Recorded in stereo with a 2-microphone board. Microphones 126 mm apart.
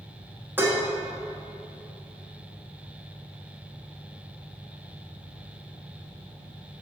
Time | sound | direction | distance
0.6 | dishes clattering | 20° right (ahead or behind) | 1.0 m